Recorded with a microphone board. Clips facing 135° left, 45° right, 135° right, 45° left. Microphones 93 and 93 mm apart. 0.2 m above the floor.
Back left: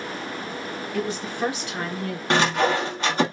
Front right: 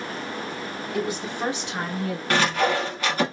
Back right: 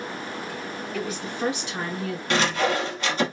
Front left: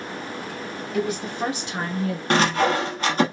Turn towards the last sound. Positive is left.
turn(degrees=75)